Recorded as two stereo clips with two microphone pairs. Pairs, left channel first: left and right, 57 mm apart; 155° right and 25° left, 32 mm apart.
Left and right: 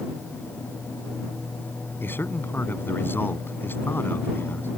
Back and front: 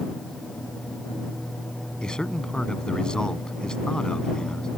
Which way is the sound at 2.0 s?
140° left.